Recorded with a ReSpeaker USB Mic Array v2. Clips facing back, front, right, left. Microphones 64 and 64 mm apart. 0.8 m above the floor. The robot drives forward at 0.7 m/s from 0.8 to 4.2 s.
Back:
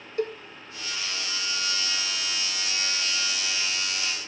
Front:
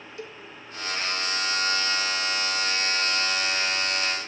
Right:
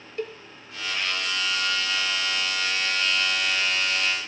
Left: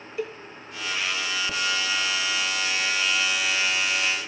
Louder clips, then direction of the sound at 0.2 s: Back 12 dB, left 1 dB; 175° left.